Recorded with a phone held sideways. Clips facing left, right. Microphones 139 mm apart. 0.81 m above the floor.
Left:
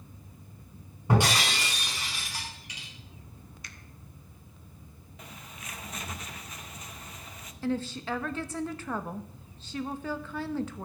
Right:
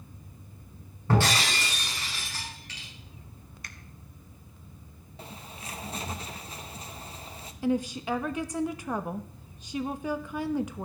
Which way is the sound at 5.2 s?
30° right (ahead or behind).